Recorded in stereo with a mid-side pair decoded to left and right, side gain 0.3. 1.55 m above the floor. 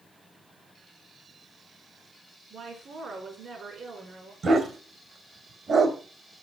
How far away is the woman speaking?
About 5 m.